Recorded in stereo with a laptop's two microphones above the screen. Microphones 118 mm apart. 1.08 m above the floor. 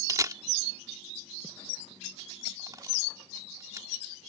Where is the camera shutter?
30° right (ahead or behind).